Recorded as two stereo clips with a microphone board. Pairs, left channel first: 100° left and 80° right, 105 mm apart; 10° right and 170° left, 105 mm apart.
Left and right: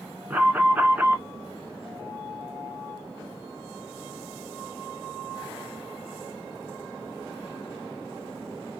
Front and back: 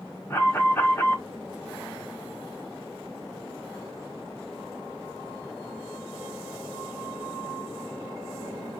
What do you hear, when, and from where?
0.3 s an alarm: 30° right, 1.8 m